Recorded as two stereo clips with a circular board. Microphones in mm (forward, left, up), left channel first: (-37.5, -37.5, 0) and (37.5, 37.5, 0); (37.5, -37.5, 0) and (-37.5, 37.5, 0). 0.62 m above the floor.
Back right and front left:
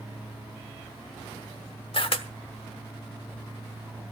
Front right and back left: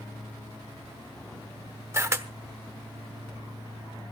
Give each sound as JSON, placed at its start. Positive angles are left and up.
{"t": 1.9, "sound": "a camera shutter", "azimuth_deg": -160, "distance_m": 1.1}